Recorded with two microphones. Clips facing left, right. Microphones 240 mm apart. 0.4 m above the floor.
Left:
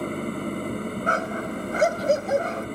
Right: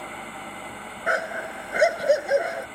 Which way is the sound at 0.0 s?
50° left (ahead or behind).